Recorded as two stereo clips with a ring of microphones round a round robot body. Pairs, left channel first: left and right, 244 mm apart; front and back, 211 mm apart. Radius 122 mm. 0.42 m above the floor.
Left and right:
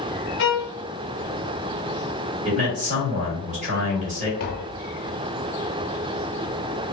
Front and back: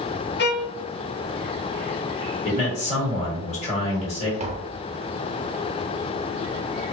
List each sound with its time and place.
0.4 s a violin: 45° left, 0.5 m
2.5 s a man speaking: 45° right, 1.4 m
4.4 s tapping: 125° left, 0.6 m